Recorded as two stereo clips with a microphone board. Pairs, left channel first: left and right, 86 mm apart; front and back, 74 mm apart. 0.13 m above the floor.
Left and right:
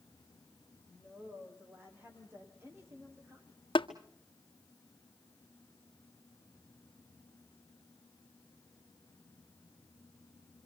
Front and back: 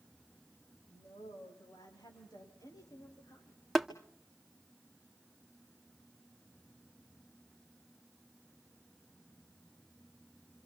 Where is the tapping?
90° left, 1.8 m.